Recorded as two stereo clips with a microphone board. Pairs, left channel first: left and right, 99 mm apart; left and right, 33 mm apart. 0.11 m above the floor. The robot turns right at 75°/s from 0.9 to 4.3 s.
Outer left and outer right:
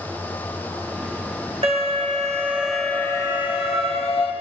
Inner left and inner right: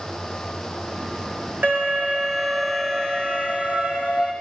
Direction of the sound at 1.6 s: 80° right.